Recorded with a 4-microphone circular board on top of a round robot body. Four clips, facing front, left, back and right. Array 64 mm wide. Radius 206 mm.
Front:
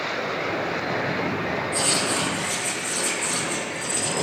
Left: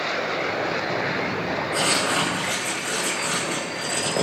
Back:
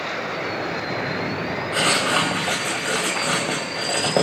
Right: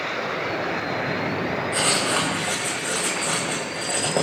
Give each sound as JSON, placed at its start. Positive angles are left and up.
{"t": 1.7, "sound": "writing", "azimuth_deg": -175, "distance_m": 5.5}